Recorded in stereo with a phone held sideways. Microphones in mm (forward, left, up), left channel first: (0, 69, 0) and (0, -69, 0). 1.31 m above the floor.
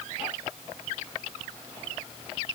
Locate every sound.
Only background noise.